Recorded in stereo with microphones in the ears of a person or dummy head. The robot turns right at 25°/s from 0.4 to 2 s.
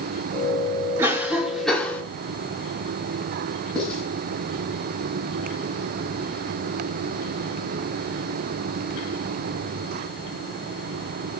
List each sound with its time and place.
1.0 s a cough: 15° right (ahead or behind), 4.5 m; by 2.0 s 10° left (ahead or behind), 4.5 m
3.8 s writing: 5° left (ahead or behind), 9.5 m